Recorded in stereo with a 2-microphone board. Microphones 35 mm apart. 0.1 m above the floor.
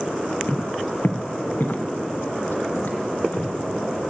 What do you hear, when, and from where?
0.5 s footsteps: 55° left (ahead or behind), 0.6 m; by 3.5 s 75° left (ahead or behind), 2 m